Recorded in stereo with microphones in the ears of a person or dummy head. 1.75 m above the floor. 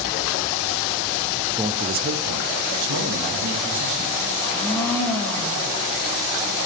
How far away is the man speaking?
About 0.6 m.